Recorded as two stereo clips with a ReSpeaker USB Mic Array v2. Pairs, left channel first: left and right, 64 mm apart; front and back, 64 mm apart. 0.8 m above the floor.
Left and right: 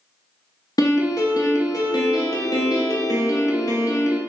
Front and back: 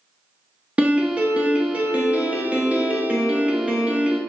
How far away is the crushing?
No crushing in this recording.